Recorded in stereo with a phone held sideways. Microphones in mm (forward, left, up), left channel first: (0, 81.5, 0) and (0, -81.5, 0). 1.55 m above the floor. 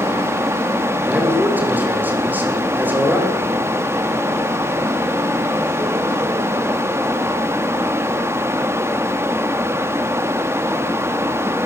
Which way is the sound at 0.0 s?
15° right (ahead or behind).